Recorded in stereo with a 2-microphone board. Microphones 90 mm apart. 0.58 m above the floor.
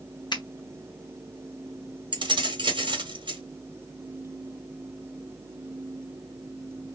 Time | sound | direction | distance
0.3 | a finger snap | 55° left (ahead or behind) | 1.0 m
2.1 | keys jangling | 60° right (ahead or behind) | 0.9 m